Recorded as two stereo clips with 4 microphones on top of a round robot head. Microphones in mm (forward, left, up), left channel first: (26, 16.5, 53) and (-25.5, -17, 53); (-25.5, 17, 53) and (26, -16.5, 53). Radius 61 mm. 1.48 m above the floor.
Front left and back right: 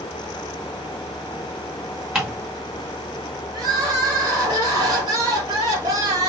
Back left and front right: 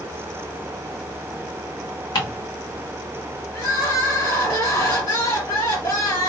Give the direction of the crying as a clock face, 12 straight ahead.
6 o'clock.